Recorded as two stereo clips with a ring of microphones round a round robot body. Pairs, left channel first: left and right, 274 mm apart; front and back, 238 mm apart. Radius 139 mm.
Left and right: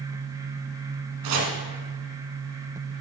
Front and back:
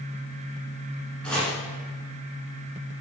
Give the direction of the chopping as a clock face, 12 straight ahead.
3 o'clock.